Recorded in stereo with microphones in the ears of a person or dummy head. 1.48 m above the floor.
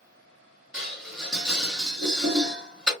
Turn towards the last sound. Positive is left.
turn(degrees=0)  # may be behind; listen again after turning